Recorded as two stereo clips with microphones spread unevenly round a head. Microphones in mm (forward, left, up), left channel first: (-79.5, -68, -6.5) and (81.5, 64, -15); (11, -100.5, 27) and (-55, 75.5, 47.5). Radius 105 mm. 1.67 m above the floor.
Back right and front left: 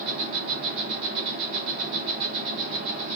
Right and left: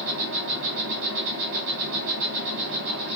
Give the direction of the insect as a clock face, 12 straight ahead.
9 o'clock.